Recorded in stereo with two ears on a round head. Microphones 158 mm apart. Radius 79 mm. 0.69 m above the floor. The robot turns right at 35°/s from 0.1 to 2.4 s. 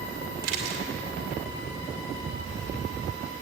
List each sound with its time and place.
0.4 s a camera shutter: 60° right (ahead or behind), 2.5 m; by 0.8 s 65° right (ahead or behind), 2.5 m